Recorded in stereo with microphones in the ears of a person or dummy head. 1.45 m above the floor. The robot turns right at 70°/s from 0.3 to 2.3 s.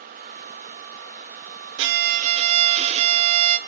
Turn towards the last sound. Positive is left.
turn(degrees=-30)